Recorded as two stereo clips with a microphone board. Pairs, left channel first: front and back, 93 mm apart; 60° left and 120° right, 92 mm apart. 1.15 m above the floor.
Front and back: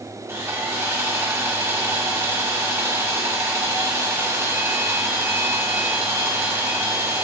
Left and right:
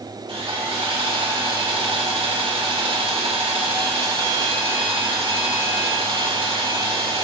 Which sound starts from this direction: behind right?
Sawing, at 0.3 s.